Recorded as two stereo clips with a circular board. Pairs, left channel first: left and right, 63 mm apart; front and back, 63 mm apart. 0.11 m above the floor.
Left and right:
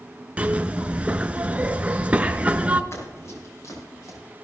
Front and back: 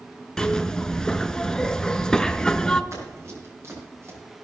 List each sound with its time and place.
0.4 s a zipper: 65° right, 0.6 m
2.9 s running footsteps: 135° left, 6 m; by 4.2 s 130° left, 5.5 m